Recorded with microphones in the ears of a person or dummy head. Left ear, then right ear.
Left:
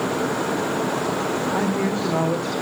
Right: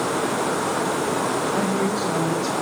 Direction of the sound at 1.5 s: 25° left (ahead or behind).